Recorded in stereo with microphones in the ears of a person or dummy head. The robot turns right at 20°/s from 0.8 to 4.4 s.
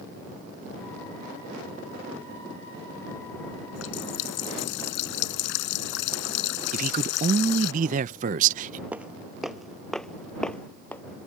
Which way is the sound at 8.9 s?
10° right (ahead or behind).